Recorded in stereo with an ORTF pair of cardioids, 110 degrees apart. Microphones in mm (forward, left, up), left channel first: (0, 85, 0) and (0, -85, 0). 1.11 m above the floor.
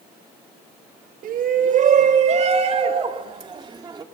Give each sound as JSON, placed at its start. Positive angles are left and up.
{"t": 1.2, "sound": "a shout", "azimuth_deg": -60, "distance_m": 2.0}